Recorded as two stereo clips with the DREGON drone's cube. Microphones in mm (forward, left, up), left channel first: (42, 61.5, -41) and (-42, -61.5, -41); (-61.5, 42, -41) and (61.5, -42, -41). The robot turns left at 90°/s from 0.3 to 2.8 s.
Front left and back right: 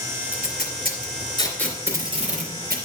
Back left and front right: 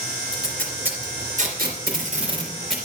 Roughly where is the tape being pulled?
Left.